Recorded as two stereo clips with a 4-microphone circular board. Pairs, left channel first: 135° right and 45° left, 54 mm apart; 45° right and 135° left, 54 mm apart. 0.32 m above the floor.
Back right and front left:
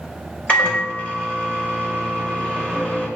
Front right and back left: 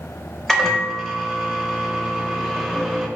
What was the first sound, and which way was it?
A microwave, 125° right.